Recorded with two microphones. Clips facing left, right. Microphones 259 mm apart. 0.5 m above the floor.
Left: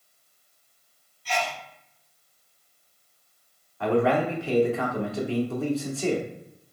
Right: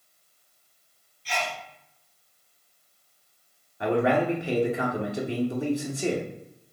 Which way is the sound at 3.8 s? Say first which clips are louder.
Left 1 dB; 15° right (ahead or behind).